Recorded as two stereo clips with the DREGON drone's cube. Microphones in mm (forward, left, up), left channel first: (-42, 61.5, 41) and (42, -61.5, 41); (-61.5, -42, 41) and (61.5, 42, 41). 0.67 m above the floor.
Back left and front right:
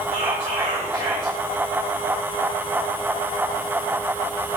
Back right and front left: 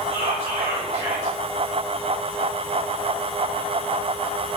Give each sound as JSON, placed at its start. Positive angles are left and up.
{"t": 0.1, "sound": "whispering", "azimuth_deg": -10, "distance_m": 1.3}